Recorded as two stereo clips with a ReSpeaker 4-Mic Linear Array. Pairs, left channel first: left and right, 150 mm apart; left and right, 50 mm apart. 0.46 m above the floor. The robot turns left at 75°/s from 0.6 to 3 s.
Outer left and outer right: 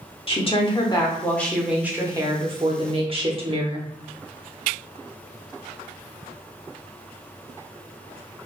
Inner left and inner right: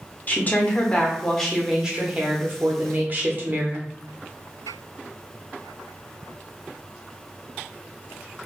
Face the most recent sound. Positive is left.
turn(degrees=-105)